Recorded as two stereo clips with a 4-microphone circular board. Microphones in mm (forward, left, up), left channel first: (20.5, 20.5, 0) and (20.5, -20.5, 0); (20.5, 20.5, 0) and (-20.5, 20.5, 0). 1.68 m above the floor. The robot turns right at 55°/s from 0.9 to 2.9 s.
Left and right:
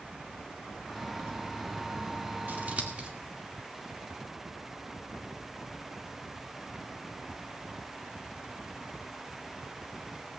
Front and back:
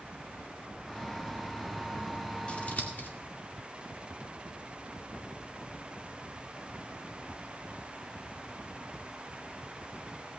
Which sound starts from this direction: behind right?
A child speaking, at 0.6 s.